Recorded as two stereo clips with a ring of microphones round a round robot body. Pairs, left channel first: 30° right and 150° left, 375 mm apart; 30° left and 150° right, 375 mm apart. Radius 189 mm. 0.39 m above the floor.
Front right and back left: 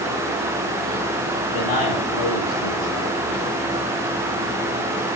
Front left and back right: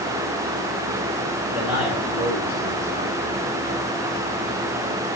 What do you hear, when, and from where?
1.5 s a man speaking: 65° right, 9.5 m; by 3.2 s 70° right, 9.5 m